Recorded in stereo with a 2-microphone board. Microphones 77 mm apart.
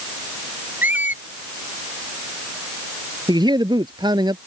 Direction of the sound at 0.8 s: 20° right (ahead or behind).